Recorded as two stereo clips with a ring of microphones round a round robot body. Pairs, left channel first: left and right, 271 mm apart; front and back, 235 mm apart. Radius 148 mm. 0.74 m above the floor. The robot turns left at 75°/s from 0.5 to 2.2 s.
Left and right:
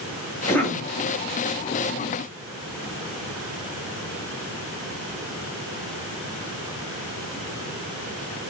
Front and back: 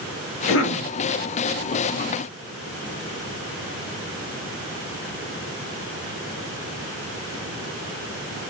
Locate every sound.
0.5 s a cough: 10° left, 1.0 m; by 0.9 s 15° right, 1.0 m